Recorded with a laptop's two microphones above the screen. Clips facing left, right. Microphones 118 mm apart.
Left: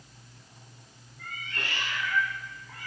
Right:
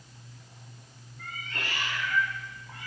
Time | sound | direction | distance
1.2 | a cat meowing | 50° right (ahead or behind) | 2 m